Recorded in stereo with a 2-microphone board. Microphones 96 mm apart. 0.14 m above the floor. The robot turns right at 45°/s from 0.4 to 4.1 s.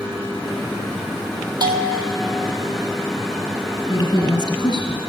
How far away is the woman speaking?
About 2.5 m.